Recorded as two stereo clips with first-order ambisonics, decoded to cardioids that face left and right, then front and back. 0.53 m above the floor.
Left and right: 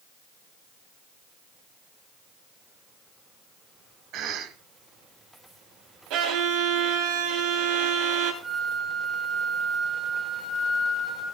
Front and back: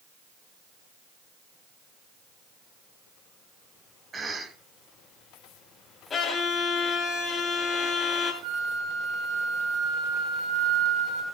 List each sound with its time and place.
4.1 s a cough: 110° right, 1.2 m
6.1 s a violin: 70° right, 2 m
8.4 s a flute: straight behind, 2.5 m